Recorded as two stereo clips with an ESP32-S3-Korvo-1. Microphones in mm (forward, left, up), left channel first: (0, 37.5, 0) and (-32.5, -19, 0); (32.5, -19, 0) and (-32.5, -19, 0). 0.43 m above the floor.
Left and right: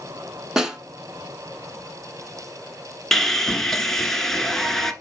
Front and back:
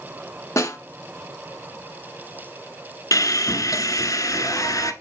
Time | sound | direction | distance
0.6 | a snare drum | 35° right | 1.4 m
3.1 | sawing | 25° right | 0.9 m